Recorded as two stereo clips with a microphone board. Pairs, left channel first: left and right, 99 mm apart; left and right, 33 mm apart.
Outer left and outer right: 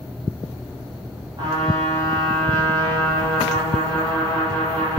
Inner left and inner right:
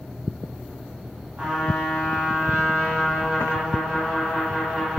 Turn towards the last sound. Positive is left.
turn(degrees=-40)  # may be behind; listen again after turning